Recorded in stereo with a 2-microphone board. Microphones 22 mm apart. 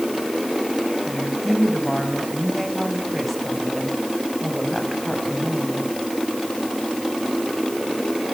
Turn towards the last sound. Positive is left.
turn(degrees=-5)  # may be behind; listen again after turning